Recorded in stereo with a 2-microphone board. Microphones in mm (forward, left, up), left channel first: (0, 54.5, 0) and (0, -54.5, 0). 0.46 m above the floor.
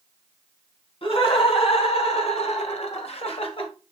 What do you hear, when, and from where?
1.0 s laughter: 55° left (ahead or behind), 3.5 m